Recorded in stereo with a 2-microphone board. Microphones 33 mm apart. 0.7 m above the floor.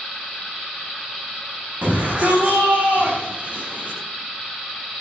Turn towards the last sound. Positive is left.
turn(degrees=-55)  # may be behind; listen again after turning